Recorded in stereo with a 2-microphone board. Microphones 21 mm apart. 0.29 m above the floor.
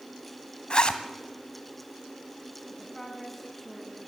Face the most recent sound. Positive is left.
turn(degrees=10)  # may be behind; listen again after turning